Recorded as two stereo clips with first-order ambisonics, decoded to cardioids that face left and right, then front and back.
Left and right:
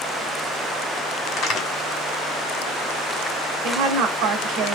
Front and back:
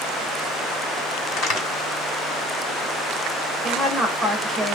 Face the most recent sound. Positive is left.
turn(degrees=-85)